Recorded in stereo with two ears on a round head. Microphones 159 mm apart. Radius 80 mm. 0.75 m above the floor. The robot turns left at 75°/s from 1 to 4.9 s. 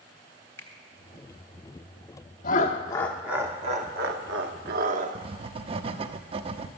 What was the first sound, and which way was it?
A finger snap, 15° left (ahead or behind).